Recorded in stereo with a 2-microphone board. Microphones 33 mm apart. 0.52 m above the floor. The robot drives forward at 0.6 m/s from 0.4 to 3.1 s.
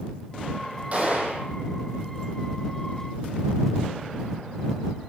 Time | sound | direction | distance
0.9 | a gunshot | 40° right (ahead or behind) | 8 m